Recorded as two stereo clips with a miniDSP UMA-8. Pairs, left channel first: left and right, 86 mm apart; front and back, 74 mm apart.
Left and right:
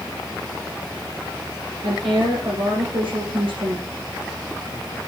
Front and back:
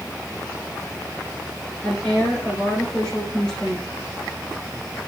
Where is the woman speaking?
80° right, 6 m.